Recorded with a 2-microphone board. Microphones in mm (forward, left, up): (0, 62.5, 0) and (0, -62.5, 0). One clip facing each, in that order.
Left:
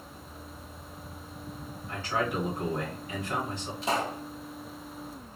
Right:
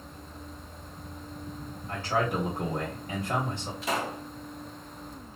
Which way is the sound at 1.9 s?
45° right (ahead or behind).